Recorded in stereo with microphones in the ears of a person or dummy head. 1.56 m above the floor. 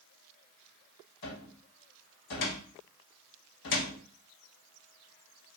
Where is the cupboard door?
60° left (ahead or behind), 1.3 m.